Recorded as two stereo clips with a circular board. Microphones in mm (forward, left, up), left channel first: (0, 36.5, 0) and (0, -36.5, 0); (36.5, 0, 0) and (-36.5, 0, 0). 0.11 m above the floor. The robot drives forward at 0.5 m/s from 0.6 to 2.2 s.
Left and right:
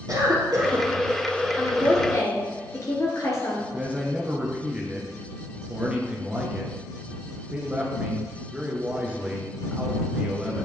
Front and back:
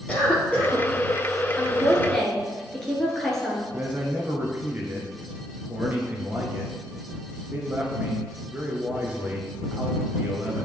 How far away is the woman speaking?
About 1.8 m.